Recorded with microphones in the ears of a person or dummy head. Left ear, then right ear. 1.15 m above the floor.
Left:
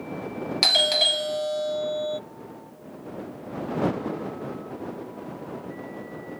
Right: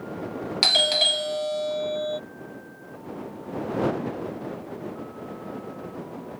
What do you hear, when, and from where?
0.6 s a doorbell: centre (ahead or behind)